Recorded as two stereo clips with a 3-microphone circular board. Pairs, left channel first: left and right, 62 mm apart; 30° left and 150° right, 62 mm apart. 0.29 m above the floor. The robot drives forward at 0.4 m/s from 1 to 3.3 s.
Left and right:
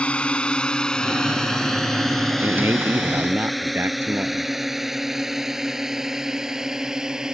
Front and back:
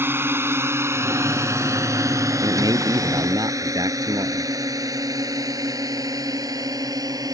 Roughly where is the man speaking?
Behind right.